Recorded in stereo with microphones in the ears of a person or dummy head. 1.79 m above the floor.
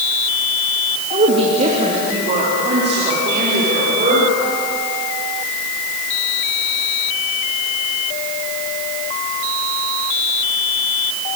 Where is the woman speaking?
35° right (ahead or behind), 2.5 m; by 4.4 s 40° right (ahead or behind), 6.5 m.